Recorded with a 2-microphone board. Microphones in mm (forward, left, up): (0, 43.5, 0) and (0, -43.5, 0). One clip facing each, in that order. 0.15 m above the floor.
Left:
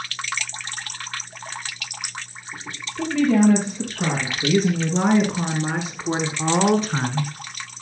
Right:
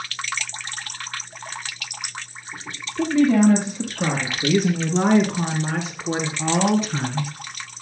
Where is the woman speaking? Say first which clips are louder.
Right 1 dB; 15° right (ahead or behind), 4 m; by 7.3 s 45° left (ahead or behind), 2 m.